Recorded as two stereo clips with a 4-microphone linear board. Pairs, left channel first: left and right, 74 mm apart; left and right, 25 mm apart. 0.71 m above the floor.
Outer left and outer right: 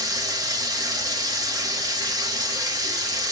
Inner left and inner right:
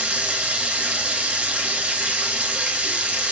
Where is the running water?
60° right (ahead or behind), 0.8 m.